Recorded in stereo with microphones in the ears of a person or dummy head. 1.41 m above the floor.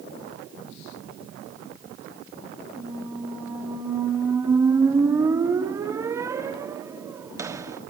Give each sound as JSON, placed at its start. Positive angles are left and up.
{"t": 2.8, "sound": "a squeak", "side_deg": -15, "distance_m": 1.4}